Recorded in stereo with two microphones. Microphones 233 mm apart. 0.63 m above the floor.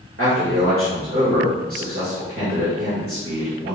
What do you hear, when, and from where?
0.2 s a man speaking: 65° right (ahead or behind), 2.5 m